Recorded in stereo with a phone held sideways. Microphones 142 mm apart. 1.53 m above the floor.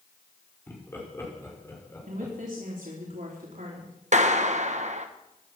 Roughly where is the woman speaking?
Right.